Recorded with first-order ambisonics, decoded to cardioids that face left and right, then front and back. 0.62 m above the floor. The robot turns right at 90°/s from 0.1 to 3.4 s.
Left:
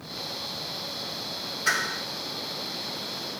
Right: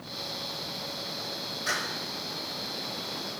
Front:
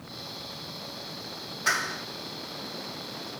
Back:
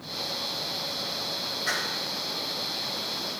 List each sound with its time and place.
1.7 s a clap: 20° left, 6 m; by 2.0 s 55° left, 6 m